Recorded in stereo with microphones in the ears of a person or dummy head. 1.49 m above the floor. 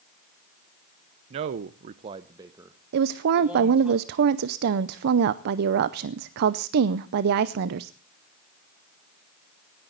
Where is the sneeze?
No sneeze in this recording.